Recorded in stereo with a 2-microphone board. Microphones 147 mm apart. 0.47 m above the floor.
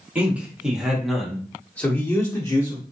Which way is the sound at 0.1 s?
10° right (ahead or behind).